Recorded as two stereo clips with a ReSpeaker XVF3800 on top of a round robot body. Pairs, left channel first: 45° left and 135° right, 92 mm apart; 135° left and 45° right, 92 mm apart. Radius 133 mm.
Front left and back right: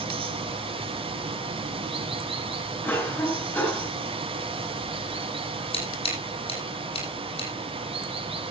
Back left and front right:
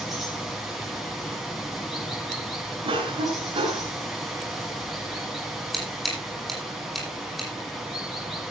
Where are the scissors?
45° left, 7.5 m.